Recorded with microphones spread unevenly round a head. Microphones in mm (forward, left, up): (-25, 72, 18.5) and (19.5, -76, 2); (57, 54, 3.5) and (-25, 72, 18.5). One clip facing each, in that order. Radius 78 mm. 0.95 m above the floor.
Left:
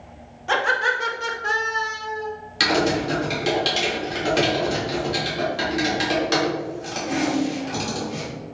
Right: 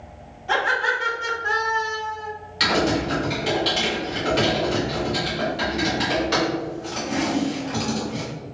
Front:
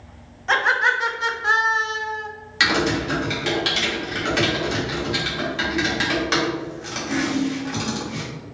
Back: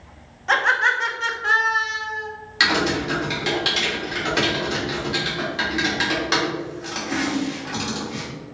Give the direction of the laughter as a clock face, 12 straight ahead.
9 o'clock.